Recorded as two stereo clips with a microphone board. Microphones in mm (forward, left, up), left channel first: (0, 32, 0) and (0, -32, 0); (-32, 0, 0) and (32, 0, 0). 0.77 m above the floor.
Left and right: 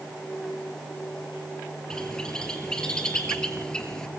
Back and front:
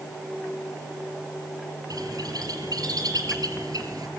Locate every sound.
1.9 s a bird: 10° left, 4 m